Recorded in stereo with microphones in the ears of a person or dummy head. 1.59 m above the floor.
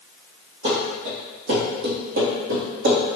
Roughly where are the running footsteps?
Right.